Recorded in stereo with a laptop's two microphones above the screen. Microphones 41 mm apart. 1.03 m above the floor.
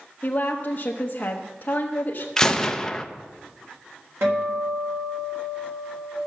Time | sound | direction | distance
0.2 | a woman speaking | 40° left (ahead or behind) | 0.8 m
2.4 | a gunshot | 10° left (ahead or behind) | 0.6 m
4.2 | a guitar | 85° right | 3.5 m